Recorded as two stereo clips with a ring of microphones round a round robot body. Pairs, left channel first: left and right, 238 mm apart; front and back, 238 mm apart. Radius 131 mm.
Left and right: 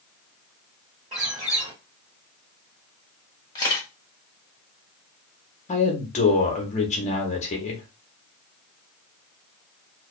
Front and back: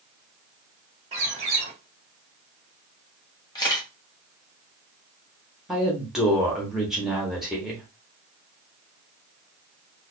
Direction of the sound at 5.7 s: 95° left.